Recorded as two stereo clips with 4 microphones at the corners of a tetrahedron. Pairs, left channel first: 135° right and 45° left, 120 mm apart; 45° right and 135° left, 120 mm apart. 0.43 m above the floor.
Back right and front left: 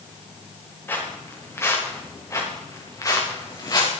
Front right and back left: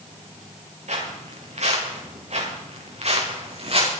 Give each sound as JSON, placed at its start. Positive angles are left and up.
{"t": 0.9, "sound": "footsteps", "azimuth_deg": 155, "distance_m": 5.0}